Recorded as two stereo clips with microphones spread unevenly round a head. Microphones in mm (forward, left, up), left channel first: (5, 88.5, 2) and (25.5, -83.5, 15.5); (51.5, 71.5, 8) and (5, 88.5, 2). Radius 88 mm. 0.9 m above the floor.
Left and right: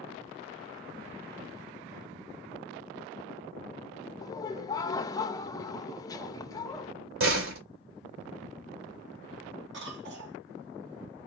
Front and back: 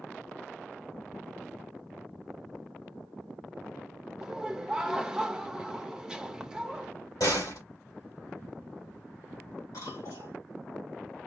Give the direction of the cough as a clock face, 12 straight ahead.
2 o'clock.